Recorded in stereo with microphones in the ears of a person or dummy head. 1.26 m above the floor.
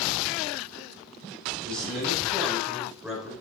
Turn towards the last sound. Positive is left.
turn(degrees=5)  # may be behind; listen again after turning